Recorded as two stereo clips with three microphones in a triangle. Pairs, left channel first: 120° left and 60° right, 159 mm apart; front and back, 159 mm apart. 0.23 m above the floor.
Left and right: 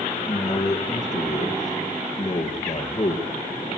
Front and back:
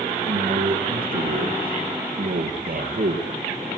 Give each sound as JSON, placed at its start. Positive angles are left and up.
{"t": 0.3, "sound": "a man speaking", "azimuth_deg": -175, "distance_m": 4.0}